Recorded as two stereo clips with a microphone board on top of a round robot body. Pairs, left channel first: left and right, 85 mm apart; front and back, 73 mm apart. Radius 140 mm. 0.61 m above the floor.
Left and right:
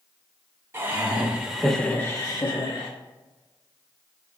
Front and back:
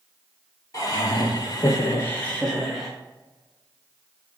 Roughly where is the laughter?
Ahead right.